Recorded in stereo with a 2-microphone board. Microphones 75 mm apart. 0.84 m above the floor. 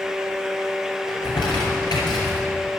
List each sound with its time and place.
1.1 s crumpling: 70° left (ahead or behind), 3.5 m